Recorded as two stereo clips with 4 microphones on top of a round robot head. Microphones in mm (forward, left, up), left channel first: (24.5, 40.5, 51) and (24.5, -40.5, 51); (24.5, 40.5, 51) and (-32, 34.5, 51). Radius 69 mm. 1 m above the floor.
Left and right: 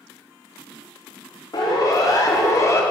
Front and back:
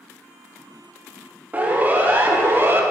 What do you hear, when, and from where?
1.5 s a siren: 125° left, 2.5 m; by 2.8 s 140° left, 1.9 m